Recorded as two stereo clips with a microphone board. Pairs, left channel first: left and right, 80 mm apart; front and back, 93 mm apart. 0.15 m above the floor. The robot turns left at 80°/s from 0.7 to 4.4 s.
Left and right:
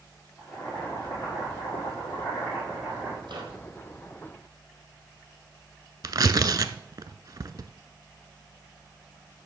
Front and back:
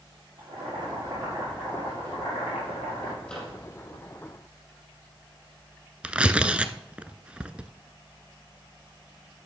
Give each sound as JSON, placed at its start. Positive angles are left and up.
{"t": 0.4, "sound": "boiling", "azimuth_deg": 170, "distance_m": 6.5}
{"t": 3.2, "sound": "a microwave", "azimuth_deg": -75, "distance_m": 4.0}
{"t": 6.0, "sound": "tearing paper", "azimuth_deg": -105, "distance_m": 0.5}